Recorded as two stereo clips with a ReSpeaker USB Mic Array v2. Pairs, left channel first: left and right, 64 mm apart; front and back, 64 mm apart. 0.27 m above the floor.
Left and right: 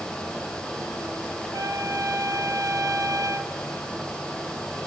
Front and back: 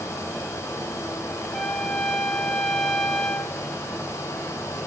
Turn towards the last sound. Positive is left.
turn(degrees=-85)